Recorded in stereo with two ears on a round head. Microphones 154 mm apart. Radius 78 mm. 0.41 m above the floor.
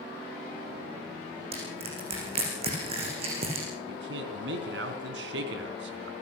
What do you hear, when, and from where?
1.5 s crushing: 35° right (ahead or behind), 7.5 m
3.9 s a man speaking: 75° right (ahead or behind), 3.5 m